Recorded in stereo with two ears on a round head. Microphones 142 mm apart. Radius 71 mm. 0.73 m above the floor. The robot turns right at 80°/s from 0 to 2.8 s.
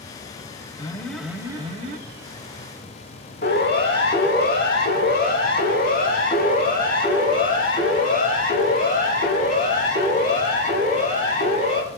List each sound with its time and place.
0.8 s an alarm: 150° left, 2.5 m; by 2.0 s 115° right, 2.5 m
3.4 s a siren: 80° left, 6.5 m; by 11.8 s 50° left (ahead or behind), 13 m